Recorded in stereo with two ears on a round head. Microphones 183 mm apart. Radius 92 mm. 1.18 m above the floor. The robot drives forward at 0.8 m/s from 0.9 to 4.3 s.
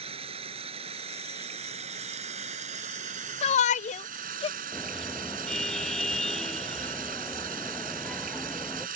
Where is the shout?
30° left (ahead or behind).